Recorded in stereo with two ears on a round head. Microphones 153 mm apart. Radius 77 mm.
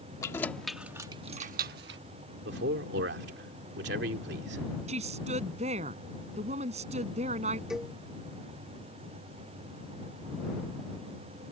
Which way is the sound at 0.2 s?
20° left (ahead or behind).